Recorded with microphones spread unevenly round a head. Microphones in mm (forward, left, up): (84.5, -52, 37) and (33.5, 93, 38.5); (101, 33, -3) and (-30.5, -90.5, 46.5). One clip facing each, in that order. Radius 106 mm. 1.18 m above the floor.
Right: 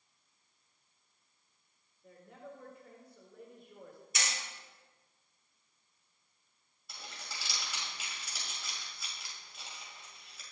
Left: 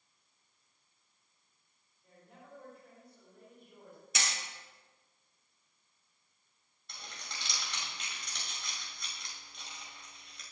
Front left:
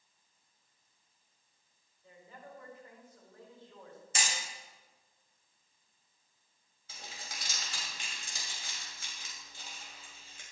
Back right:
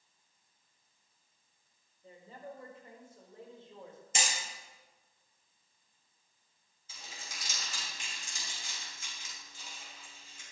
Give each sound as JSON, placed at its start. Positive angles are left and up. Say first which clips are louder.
{"t": 2.0, "sound": "a woman speaking", "louder": "right 6 dB, back right 5 dB", "azimuth_deg": -75, "distance_m": 5.0}
{"t": 4.2, "sound": "hammering", "louder": "left 1 dB, back right 2 dB", "azimuth_deg": 155, "distance_m": 4.0}
{"t": 6.9, "sound": "crumpling", "louder": "even, front left 2 dB", "azimuth_deg": 15, "distance_m": 6.5}